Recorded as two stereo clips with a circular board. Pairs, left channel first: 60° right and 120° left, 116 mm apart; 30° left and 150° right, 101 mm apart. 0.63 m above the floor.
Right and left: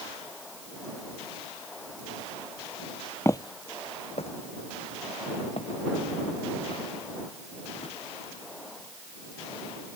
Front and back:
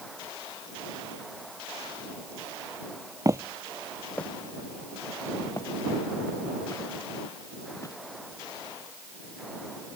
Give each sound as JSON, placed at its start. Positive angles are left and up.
{"t": 3.2, "sound": "footsteps", "azimuth_deg": -120}